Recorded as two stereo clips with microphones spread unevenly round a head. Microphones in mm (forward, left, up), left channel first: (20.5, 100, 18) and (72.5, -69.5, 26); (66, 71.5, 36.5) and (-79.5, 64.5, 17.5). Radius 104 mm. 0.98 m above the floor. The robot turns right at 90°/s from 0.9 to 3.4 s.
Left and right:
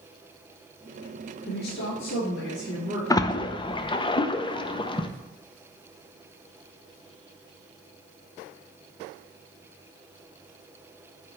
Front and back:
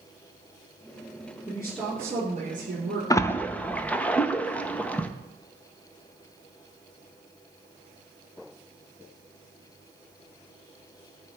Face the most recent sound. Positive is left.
turn(degrees=90)